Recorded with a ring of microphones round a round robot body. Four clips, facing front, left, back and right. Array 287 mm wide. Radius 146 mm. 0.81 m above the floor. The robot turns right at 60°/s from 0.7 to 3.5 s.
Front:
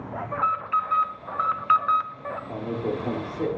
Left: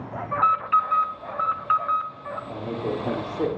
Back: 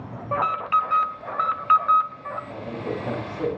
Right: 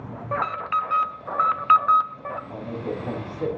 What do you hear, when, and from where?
0.3 s an alarm: 145° right, 0.7 m; by 2.4 s 45° right, 0.7 m
2.5 s a man speaking: 25° left, 2.5 m; by 3.5 s 85° left, 2.5 m